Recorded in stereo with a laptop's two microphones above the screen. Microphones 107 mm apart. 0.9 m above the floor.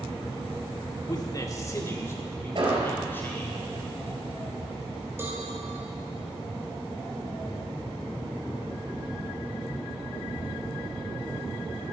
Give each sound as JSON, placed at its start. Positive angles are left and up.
{"t": 1.1, "sound": "a man speaking", "side_deg": 40, "distance_m": 1.5}
{"t": 2.5, "sound": "an explosion", "side_deg": -55, "distance_m": 3.5}
{"t": 5.2, "sound": "a cowbell", "side_deg": -25, "distance_m": 3.5}